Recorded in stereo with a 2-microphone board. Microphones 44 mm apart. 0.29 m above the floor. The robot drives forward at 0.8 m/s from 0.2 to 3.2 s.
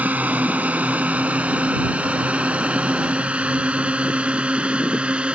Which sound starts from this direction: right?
A drone, at 0.0 s.